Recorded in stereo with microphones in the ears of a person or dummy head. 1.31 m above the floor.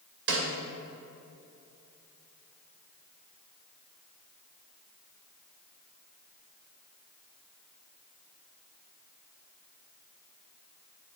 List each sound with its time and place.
0.3 s a snare drum: 70° right (ahead or behind), 2 m